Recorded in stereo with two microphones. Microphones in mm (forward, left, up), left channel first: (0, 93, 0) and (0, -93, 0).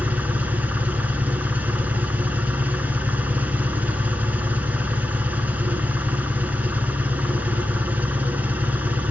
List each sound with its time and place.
0.0 s an engine running: 10° right (ahead or behind), 1.5 m